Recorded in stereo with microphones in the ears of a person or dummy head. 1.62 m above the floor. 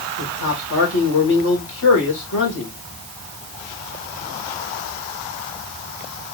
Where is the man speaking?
75° left (ahead or behind), 1.7 m.